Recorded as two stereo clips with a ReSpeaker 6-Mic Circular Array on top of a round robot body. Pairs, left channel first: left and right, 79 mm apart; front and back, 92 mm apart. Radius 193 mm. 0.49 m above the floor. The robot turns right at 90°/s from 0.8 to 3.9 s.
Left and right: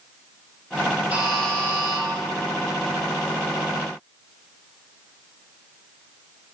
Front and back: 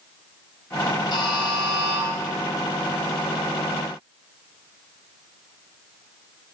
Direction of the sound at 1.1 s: 20° right.